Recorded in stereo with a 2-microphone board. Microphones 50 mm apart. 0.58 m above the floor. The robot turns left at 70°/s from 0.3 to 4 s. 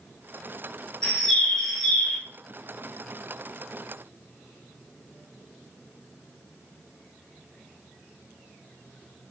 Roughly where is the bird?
Centre.